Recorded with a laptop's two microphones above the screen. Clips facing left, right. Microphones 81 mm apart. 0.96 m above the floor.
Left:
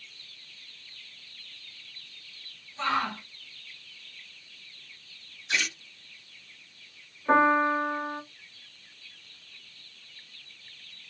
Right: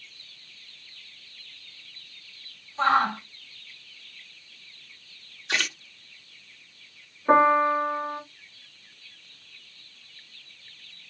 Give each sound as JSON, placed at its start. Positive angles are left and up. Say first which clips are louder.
{"t": 2.8, "sound": "a shout", "louder": "right 7 dB", "side_deg": -45, "distance_m": 2.5}
{"t": 5.5, "sound": "a splash", "louder": "right 2 dB", "side_deg": -75, "distance_m": 1.7}
{"t": 7.3, "sound": "a piano", "louder": "right 3 dB", "side_deg": -20, "distance_m": 1.7}